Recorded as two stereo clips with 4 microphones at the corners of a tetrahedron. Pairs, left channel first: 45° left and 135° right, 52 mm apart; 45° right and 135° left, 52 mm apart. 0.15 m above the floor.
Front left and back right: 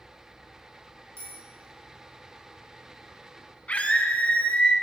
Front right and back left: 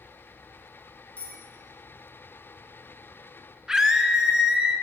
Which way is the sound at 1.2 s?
105° right.